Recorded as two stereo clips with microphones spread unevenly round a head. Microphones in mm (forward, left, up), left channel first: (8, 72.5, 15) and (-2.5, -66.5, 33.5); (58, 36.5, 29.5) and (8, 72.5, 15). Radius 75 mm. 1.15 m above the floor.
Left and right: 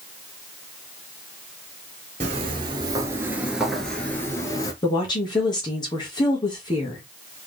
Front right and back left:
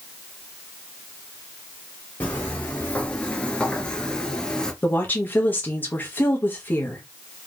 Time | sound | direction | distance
2.2 | footsteps | 90° right | 1.5 m
4.8 | a woman speaking | 25° left | 1.5 m